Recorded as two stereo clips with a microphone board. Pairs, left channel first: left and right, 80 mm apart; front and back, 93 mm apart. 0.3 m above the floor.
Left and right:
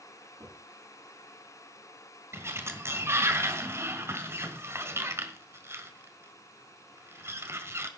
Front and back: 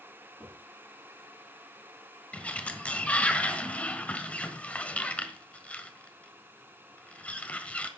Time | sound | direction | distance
0.4 | knocking | 75° right | 9.5 m
2.3 | a sliding door | 65° right | 1.7 m